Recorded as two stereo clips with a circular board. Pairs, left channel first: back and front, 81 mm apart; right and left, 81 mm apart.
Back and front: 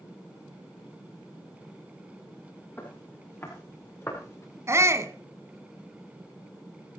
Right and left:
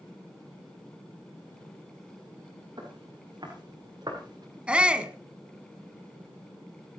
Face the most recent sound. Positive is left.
turn(degrees=20)